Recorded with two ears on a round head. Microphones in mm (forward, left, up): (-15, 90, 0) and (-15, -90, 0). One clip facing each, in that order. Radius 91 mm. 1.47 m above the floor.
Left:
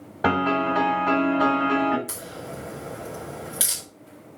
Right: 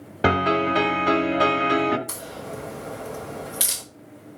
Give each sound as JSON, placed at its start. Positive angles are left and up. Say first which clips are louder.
{"t": 0.2, "sound": "a piano", "louder": "right 1 dB", "side_deg": -35, "distance_m": 1.5}
{"t": 2.1, "sound": "a crack", "louder": "right 1 dB", "side_deg": 5, "distance_m": 3.5}